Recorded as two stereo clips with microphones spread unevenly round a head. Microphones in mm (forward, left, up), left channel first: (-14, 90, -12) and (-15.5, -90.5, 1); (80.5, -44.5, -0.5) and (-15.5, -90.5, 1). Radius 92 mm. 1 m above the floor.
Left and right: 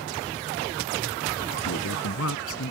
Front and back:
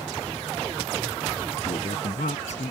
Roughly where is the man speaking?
Left.